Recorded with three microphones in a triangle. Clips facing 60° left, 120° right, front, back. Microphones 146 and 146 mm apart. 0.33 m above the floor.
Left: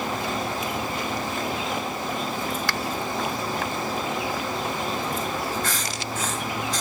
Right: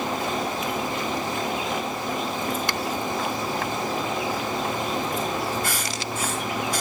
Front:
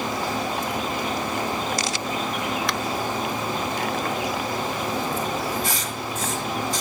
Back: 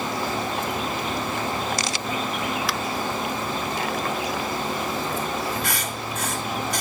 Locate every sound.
2.7 s a finger snap: 95° right, 0.7 m
5.6 s writing: 160° left, 4 m